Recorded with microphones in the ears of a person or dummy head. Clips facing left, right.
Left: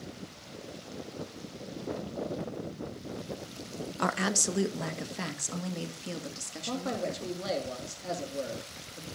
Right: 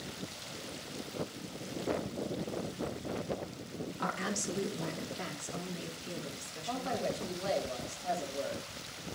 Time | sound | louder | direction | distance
4.0 | a woman speaking | left 7 dB | 60° left (ahead or behind) | 0.6 m
6.7 | a man speaking | left 2 dB | 50° left (ahead or behind) | 1.8 m